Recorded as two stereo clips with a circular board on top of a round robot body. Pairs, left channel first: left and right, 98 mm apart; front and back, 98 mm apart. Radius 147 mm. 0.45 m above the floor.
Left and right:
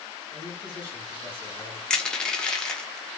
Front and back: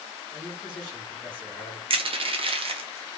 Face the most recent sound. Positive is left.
turn(degrees=170)